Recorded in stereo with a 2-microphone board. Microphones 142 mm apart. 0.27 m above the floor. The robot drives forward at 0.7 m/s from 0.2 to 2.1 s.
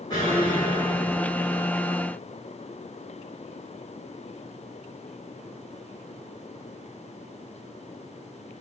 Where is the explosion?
25° left (ahead or behind), 8 m; by 1.7 s 30° left (ahead or behind), 7 m.